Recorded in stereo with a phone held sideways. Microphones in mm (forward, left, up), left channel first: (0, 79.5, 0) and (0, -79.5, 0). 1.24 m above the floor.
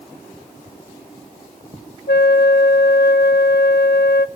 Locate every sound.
2.1 s a flute: 85° left, 0.7 m